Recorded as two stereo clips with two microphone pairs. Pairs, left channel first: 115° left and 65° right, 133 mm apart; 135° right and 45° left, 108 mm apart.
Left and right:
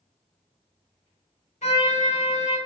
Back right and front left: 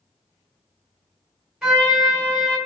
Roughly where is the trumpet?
Behind left.